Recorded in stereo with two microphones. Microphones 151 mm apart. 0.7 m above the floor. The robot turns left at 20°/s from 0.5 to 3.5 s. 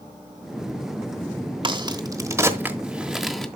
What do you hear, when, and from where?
1.6 s a crack: 35° right (ahead or behind), 1.1 m; by 3.5 s 5° left (ahead or behind), 1.1 m